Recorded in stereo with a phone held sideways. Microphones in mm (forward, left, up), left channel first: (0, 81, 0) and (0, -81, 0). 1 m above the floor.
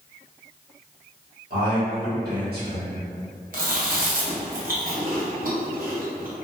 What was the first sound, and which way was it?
A man speaking, 80° right.